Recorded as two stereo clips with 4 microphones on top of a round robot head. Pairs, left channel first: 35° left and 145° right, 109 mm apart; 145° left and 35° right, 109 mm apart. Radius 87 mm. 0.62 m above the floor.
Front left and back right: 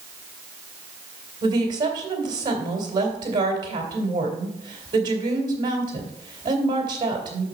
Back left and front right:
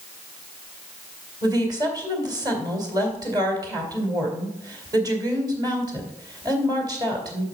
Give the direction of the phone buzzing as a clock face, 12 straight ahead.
I don't hear a phone buzzing.